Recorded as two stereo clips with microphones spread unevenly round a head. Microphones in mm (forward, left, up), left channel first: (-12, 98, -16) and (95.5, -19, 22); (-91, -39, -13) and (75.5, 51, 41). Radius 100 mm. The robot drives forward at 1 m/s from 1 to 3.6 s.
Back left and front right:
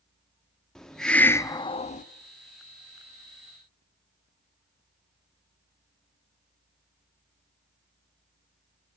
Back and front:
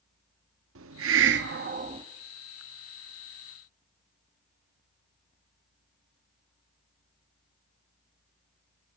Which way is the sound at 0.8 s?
45° left.